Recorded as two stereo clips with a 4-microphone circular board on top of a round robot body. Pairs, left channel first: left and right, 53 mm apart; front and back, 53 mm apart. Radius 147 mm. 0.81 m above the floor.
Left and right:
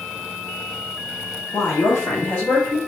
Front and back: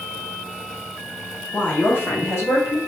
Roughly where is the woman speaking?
Ahead left.